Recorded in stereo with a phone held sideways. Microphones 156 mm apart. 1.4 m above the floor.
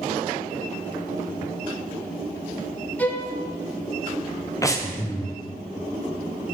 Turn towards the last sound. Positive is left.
turn(degrees=20)  # may be behind; listen again after turning